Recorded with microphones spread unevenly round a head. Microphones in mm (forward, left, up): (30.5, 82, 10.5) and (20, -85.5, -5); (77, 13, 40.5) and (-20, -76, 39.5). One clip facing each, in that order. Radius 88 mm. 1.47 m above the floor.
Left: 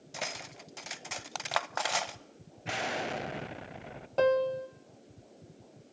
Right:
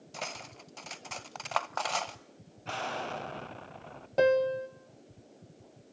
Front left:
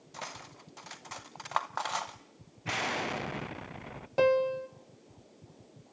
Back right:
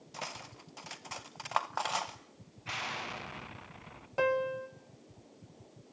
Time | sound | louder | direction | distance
0.1 | cutlery clinking | left 1 dB, even | 145° left | 0.5 m
2.6 | an explosion | left 2 dB, front left 7 dB | 15° left | 0.7 m
4.2 | a piano | right 1 dB, front left 5 dB | 20° right | 1.4 m